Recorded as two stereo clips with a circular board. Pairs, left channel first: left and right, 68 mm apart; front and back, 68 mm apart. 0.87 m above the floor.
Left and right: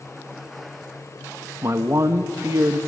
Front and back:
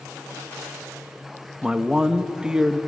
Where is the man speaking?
105° right, 1.1 m.